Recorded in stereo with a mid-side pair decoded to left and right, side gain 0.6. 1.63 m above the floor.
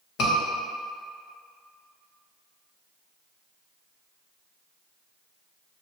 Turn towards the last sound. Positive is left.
turn(degrees=60)